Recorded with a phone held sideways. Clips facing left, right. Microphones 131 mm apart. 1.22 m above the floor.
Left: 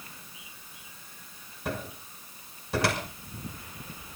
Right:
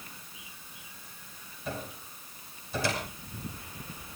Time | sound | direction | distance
1.6 | a cupboard door | 70° left (ahead or behind) | 6 m